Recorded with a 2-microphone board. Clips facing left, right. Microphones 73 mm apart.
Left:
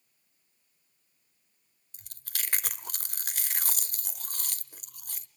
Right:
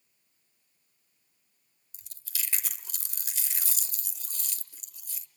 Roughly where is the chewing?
Left.